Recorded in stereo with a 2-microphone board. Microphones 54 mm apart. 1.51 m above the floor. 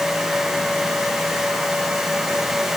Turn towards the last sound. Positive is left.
No sound to turn to.